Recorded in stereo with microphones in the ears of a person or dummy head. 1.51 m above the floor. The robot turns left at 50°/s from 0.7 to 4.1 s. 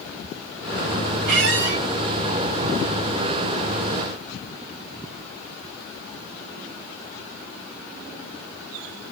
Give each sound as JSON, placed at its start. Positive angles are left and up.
{"t": 1.3, "sound": "a squeak", "side_deg": -65, "distance_m": 2.5}